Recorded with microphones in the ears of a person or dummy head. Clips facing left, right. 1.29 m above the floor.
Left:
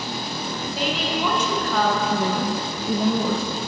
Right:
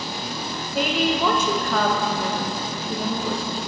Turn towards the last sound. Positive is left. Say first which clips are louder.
# left 3 dB
turn(degrees=60)  # may be behind; listen again after turning